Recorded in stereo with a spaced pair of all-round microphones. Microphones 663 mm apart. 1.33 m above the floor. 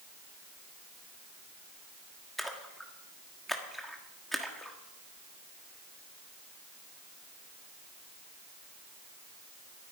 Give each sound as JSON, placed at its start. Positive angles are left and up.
{"t": 2.4, "sound": "a splash", "side_deg": 0, "distance_m": 1.5}